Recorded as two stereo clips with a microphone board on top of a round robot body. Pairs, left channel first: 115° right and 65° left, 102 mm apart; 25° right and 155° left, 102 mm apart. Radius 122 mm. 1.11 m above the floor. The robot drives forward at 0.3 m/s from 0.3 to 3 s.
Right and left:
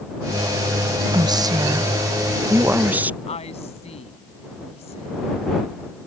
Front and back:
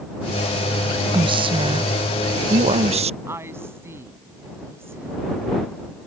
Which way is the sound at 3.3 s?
135° right.